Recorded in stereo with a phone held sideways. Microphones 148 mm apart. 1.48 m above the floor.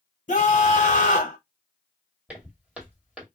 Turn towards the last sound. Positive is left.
turn(degrees=-5)  # may be behind; listen again after turning